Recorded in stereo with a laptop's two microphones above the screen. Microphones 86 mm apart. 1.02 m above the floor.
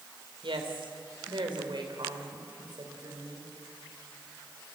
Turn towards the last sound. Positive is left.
turn(degrees=-50)  # may be behind; listen again after turning